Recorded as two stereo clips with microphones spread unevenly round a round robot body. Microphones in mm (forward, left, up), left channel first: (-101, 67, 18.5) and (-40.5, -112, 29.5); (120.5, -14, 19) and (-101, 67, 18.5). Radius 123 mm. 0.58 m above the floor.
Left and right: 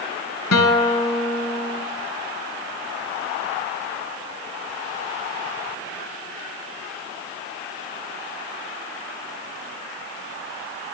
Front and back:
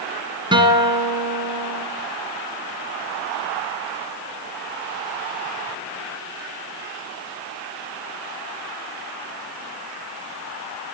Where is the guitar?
85° left, 1.8 m.